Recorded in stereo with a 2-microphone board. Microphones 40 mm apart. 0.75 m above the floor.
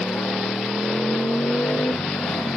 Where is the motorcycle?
80° left; by 2.6 s 85° left.